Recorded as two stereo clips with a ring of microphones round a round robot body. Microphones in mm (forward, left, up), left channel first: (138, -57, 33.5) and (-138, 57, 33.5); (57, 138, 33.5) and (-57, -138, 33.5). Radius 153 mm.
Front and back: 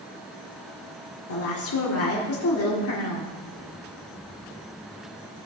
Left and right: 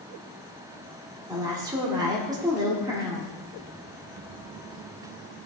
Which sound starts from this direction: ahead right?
A woman speaking, at 1.3 s.